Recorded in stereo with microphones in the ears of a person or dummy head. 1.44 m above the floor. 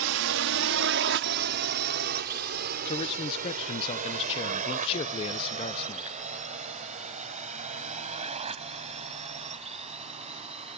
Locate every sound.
0.0 s a drone: 75° right (ahead or behind); by 10.8 s 35° right (ahead or behind)
2.9 s a man speaking: 25° left (ahead or behind)